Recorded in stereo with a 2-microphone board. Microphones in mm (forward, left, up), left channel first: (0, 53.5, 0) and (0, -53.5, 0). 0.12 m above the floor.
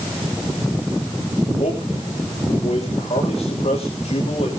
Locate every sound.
1.6 s a man speaking: 70° left (ahead or behind), 9 m